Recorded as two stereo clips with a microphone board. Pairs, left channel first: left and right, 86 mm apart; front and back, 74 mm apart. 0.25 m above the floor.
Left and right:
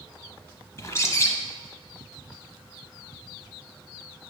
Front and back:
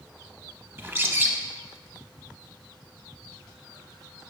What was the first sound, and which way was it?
A bird, 130° left.